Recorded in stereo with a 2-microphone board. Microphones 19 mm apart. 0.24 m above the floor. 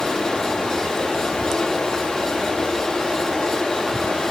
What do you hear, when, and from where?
0.0 s running water: 65° left (ahead or behind), 9.5 m